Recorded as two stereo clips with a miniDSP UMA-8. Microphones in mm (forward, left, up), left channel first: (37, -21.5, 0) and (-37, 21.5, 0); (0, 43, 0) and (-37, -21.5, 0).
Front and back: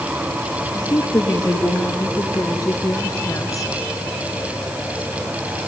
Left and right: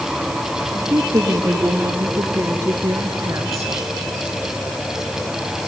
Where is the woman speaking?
75° right, 5 m.